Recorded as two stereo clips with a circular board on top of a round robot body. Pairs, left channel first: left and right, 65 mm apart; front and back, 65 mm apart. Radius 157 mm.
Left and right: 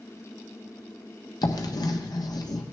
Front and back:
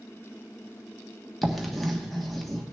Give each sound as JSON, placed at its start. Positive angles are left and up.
{"t": 1.4, "sound": "writing", "azimuth_deg": 90, "distance_m": 1.2}